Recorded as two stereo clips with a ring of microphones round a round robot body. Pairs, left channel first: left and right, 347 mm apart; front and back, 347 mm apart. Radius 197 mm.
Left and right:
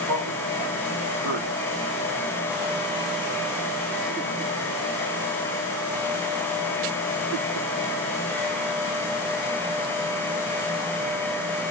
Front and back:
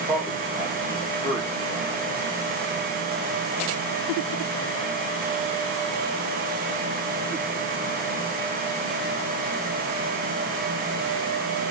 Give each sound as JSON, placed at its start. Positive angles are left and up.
{"t": 0.1, "sound": "a man speaking", "azimuth_deg": -105, "distance_m": 1.1}